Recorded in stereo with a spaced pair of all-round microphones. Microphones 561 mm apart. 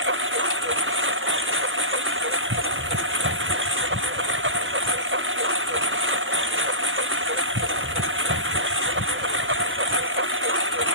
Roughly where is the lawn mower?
Right.